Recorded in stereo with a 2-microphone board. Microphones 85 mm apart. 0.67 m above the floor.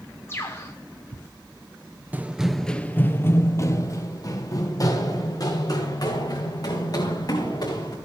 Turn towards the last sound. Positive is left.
turn(degrees=50)  # may be behind; listen again after turning